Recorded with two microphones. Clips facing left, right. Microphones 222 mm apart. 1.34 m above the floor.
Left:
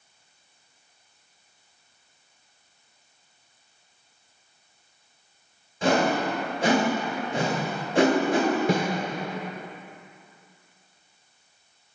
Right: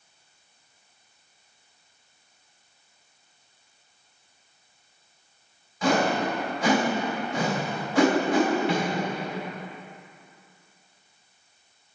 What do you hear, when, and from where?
5.8 s a whoosh: 25° left (ahead or behind), 1.7 m
8.7 s a snare drum: 45° left (ahead or behind), 1.1 m